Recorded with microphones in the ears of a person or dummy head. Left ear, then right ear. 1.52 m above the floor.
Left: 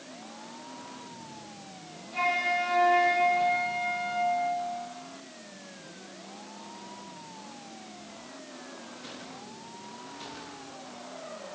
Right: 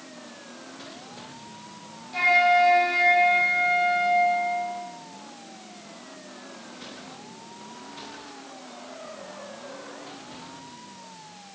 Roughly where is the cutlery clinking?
No cutlery clinking in this recording.